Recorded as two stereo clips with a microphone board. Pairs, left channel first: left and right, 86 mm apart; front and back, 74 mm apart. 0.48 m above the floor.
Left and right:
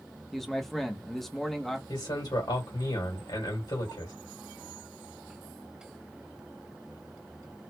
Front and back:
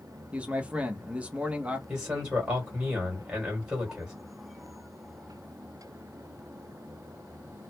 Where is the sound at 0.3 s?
170° left, 0.7 m.